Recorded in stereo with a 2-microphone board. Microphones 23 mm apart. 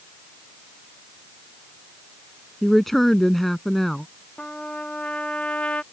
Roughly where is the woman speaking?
Centre.